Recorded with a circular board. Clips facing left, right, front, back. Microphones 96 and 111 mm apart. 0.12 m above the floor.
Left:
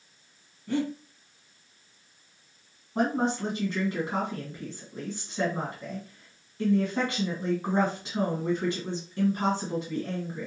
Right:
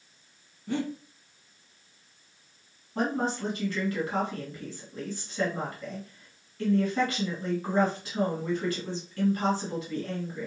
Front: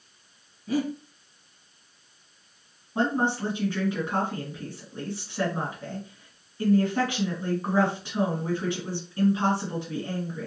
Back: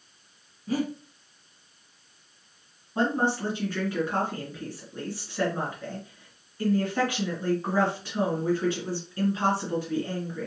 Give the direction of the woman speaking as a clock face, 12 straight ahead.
10 o'clock.